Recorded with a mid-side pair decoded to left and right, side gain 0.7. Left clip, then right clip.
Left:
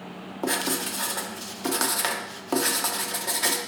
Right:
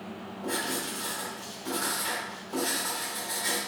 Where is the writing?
70° left, 0.6 m.